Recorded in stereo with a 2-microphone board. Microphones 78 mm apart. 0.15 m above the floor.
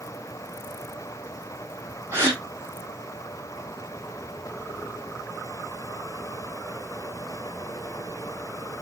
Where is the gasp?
30° right (ahead or behind), 3.5 m.